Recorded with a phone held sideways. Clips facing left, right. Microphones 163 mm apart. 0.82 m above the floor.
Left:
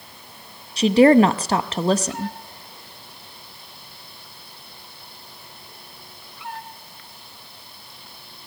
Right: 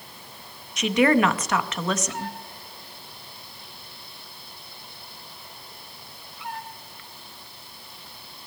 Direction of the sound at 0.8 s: 30° left (ahead or behind).